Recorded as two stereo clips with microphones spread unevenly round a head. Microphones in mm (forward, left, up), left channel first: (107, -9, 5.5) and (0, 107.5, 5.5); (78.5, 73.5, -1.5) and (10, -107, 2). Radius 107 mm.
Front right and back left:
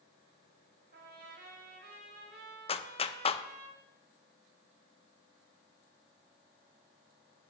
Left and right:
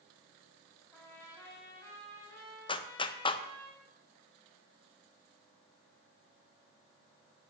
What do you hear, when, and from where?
0.9 s a trumpet: 145° left, 1.9 m
2.7 s a clap: 5° left, 0.5 m